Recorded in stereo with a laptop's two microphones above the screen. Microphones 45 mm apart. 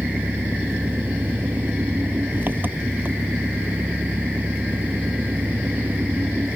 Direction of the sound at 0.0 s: 45° right (ahead or behind).